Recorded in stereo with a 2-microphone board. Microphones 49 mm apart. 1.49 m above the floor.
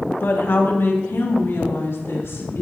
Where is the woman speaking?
50° left (ahead or behind), 1.4 m; by 2.6 s 70° left (ahead or behind), 3 m.